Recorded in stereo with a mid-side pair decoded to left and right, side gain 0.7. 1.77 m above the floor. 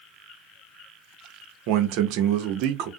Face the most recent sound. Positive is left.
turn(degrees=-65)